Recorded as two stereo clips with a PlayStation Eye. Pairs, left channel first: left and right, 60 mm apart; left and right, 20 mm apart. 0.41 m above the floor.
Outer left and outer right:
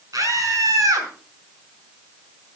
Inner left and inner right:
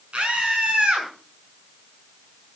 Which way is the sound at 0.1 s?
70° right (ahead or behind).